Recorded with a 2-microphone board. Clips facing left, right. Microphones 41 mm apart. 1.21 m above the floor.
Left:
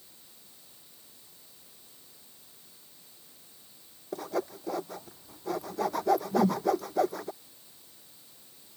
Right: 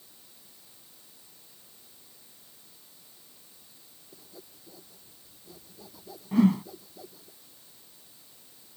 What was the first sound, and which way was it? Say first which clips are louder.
Sawing: left 20 dB; 80° left.